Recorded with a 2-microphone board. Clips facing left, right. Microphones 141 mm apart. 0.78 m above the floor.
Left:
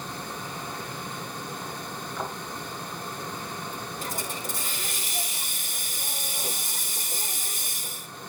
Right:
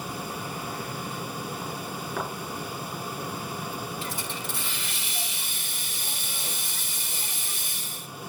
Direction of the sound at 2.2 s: 70° right (ahead or behind).